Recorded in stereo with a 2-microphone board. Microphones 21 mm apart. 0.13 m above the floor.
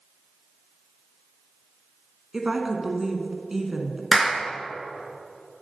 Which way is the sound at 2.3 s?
20° right (ahead or behind).